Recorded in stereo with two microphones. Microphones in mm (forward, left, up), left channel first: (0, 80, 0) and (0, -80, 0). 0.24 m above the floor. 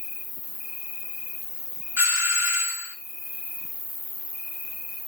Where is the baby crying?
I don't hear a baby crying.